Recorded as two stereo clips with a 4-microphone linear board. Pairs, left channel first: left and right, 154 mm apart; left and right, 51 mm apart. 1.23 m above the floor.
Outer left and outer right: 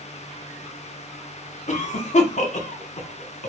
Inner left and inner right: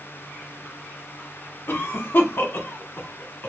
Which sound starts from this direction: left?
A cough, at 1.7 s.